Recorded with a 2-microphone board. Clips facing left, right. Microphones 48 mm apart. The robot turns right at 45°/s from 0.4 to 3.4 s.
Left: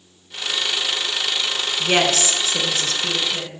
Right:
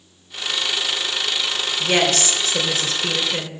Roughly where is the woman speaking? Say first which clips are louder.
Even; behind left.